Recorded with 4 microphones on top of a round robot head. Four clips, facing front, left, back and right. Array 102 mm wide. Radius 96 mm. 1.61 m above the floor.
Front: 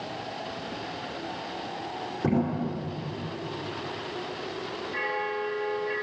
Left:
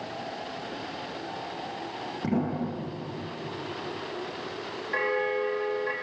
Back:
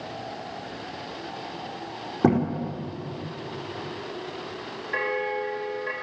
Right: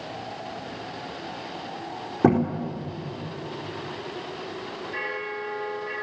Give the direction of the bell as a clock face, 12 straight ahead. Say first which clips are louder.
Left 7 dB, back 4 dB; 7 o'clock.